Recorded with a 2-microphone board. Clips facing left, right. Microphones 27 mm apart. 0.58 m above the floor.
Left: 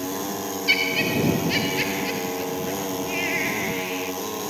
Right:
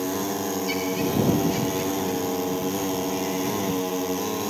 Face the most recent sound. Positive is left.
turn(degrees=70)  # may be behind; listen again after turning